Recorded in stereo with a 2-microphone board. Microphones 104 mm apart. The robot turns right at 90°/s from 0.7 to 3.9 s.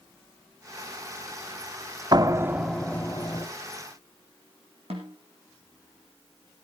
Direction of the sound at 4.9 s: 80° right.